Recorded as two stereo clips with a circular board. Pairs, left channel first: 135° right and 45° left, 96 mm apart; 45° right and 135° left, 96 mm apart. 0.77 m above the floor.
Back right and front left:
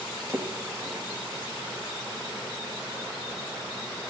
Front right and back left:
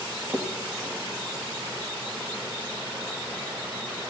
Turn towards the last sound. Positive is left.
turn(degrees=75)